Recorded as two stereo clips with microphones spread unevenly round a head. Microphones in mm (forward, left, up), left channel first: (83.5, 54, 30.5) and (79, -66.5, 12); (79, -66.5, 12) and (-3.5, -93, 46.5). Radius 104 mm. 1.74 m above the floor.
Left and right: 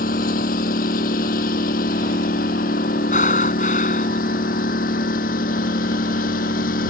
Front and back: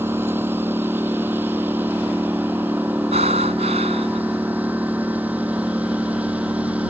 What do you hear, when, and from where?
0.0 s a lawn mower: 120° left; by 6.9 s 115° left
3.1 s breathing: 145° left